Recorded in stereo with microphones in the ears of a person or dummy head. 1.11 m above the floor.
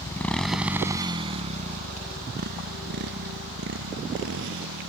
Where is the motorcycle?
15° left (ahead or behind); by 4.9 s 70° right (ahead or behind).